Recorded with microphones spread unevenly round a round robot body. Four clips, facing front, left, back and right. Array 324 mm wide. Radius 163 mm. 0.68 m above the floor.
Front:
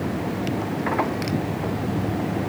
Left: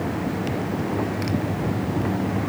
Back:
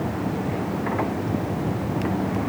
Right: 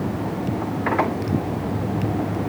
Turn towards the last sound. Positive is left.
No sound to turn to.